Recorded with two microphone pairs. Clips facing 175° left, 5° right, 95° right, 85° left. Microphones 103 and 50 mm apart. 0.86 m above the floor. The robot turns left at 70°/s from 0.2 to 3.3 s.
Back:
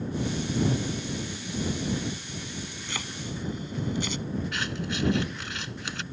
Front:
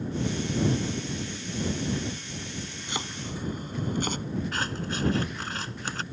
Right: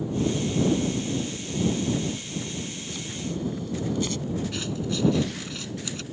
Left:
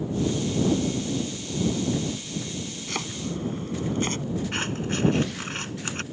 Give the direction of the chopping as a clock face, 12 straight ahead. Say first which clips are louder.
Front 2 dB, left 3 dB; 10 o'clock.